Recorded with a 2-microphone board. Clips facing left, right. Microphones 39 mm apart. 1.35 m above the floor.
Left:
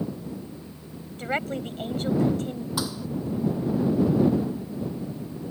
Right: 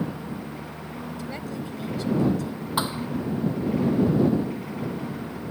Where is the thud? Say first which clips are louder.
Right 6 dB; 30° right (ahead or behind).